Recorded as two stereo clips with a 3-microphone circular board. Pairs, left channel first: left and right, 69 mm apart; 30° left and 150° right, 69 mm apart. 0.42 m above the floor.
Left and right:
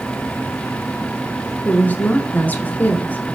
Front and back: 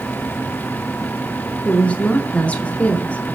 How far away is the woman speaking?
About 0.8 m.